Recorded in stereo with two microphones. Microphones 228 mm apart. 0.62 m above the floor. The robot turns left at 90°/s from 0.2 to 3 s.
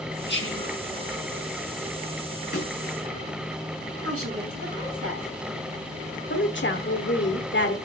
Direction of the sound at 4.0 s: 80° right.